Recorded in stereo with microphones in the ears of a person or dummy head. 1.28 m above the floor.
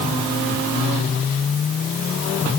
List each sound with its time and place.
Only background noise.